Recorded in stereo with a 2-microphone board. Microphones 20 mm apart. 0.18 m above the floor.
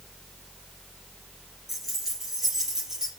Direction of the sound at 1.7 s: 10° right (ahead or behind).